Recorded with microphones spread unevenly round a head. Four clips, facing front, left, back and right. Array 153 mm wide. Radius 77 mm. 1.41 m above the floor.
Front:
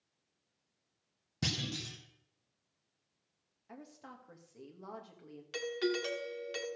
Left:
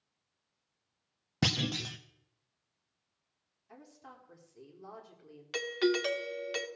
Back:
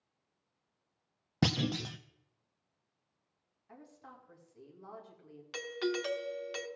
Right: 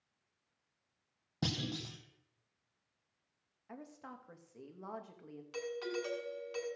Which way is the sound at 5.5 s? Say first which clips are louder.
Left 9 dB, front 1 dB; 85° left.